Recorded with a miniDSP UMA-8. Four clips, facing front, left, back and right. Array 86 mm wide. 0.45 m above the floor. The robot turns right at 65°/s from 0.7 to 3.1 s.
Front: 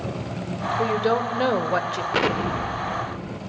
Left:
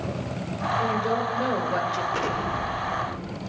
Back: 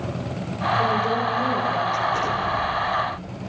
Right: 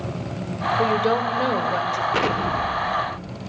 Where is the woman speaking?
65° right, 1.4 m; by 2.0 s 15° left, 1.4 m.